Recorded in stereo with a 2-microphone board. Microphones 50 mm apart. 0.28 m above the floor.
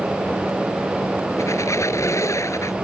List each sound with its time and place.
1.4 s a squeak: 75° left (ahead or behind)